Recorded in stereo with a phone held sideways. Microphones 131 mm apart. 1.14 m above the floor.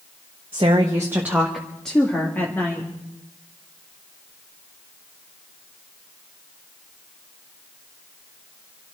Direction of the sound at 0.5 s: 40° right (ahead or behind).